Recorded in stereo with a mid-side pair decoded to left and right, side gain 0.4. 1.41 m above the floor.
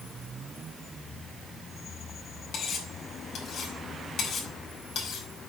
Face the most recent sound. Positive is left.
turn(degrees=70)